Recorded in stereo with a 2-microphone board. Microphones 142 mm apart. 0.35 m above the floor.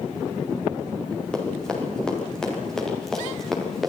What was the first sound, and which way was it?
Running footsteps, 5° left (ahead or behind).